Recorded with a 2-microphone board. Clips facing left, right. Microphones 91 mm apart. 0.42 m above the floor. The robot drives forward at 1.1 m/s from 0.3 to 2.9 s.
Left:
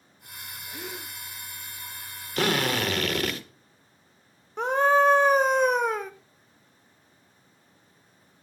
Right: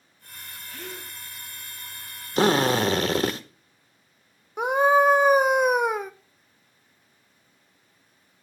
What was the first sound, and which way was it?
A gasp, 20° left (ahead or behind).